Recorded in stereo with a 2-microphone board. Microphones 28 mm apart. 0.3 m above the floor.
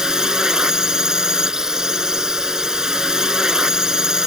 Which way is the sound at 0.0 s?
25° right (ahead or behind).